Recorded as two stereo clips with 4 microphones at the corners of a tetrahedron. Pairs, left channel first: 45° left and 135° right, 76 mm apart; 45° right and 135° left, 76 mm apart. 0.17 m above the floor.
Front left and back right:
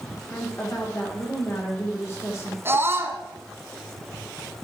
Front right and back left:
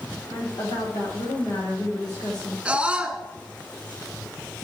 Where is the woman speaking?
15° right, 8 m.